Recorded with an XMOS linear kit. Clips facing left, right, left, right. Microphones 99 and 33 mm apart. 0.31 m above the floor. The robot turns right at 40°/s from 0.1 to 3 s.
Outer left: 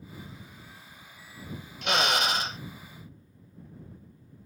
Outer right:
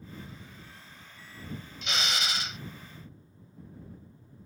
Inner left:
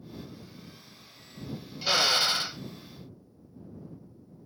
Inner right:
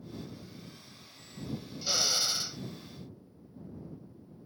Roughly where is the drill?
Left.